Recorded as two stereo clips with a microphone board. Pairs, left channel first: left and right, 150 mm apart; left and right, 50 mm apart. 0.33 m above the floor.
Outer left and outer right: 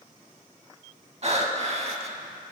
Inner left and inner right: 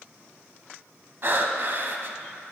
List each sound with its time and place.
1.2 s breathing: 45° right (ahead or behind), 0.5 m